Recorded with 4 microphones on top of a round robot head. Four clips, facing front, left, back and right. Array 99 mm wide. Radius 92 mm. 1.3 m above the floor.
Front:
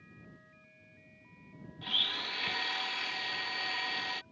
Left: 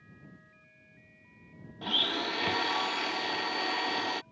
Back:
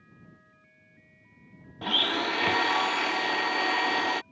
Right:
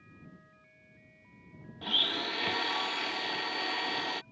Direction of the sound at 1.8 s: 170° left.